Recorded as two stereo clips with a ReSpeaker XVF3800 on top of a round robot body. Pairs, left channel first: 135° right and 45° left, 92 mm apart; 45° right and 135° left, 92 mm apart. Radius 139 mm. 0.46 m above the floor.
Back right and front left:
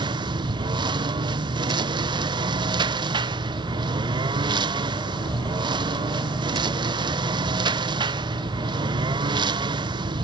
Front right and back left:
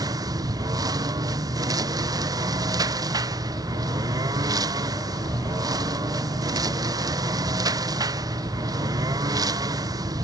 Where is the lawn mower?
85° left.